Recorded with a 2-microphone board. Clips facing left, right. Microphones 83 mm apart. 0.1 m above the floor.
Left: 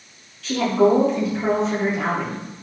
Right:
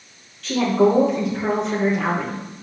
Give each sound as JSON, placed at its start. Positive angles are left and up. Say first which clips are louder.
{"t": 0.4, "sound": "a woman speaking", "louder": "even", "side_deg": 0, "distance_m": 3.0}